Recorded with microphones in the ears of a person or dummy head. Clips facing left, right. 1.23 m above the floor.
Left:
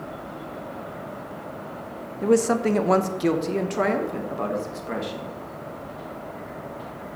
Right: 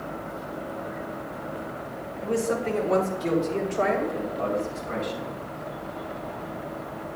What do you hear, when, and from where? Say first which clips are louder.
2.2 s a woman speaking: left 6 dB; 60° left (ahead or behind), 0.7 m; by 5.4 s 55° left (ahead or behind), 2 m